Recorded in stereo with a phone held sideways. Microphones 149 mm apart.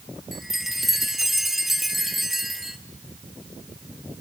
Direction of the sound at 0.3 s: Centre (ahead or behind).